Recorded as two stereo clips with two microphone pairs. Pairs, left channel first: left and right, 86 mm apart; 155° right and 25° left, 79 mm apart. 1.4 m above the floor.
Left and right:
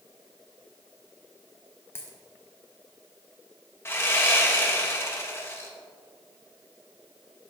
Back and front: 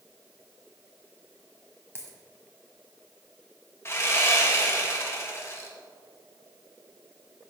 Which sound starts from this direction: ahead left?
A dropped coin, at 1.9 s.